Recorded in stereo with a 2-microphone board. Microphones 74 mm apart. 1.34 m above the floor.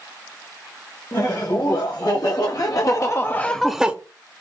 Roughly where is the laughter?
Left.